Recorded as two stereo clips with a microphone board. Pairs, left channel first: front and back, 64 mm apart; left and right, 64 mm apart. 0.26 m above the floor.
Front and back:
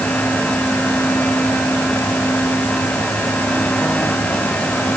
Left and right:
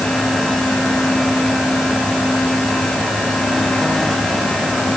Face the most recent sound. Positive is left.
No sound to turn to.